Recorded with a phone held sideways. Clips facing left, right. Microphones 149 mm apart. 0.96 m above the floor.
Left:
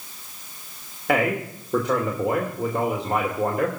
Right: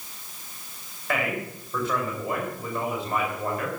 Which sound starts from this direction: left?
A man speaking, at 1.1 s.